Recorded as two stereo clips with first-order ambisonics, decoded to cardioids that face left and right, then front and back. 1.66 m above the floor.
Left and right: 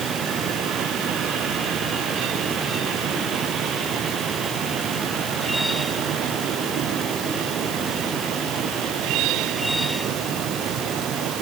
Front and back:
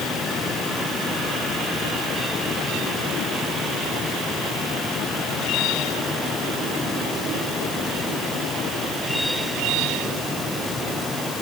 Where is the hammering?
I don't hear hammering.